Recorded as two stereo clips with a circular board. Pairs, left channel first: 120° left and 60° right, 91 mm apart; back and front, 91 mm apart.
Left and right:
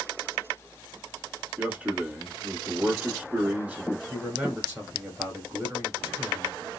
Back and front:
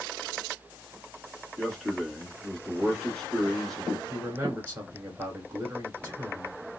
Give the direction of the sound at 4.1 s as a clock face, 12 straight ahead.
1 o'clock.